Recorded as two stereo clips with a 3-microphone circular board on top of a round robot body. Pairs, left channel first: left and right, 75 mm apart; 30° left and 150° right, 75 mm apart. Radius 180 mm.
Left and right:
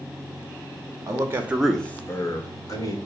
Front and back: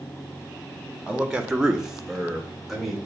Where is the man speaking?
70° right, 0.9 m; by 3.0 s 125° left, 1.5 m.